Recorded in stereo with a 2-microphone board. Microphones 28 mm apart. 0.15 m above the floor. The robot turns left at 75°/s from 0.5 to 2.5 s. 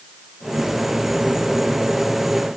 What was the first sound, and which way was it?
Only background noise.